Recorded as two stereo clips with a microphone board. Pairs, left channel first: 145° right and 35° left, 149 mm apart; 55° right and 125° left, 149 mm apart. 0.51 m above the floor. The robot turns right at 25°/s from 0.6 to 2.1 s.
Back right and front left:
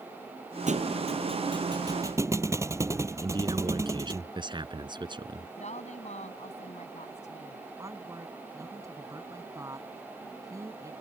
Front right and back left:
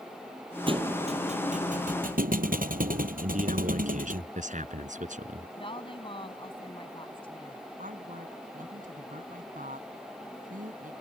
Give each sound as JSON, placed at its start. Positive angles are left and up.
{"t": 0.7, "sound": "a thud", "azimuth_deg": 70}
{"t": 3.2, "sound": "a man speaking", "azimuth_deg": 90}
{"t": 5.6, "sound": "a woman speaking", "azimuth_deg": -110}
{"t": 7.8, "sound": "a woman speaking", "azimuth_deg": 100}